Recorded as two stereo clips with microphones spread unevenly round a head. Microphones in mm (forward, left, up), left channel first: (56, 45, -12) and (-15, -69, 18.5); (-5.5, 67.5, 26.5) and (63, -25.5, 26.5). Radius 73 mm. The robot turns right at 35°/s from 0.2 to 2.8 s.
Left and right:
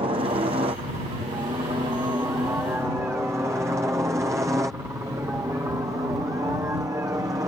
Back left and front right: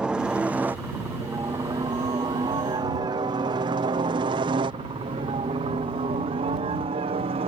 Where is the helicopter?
125° right; by 7.5 s 55° right.